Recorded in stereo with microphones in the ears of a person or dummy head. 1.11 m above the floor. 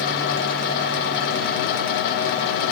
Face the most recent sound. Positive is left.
No sound to turn to.